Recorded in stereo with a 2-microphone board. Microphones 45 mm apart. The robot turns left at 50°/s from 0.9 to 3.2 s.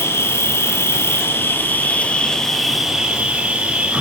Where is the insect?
90° left, 1.4 m; by 4.0 s 25° right, 1.4 m.